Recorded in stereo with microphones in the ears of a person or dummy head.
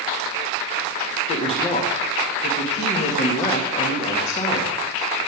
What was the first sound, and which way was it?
A woman speaking, 35° left (ahead or behind).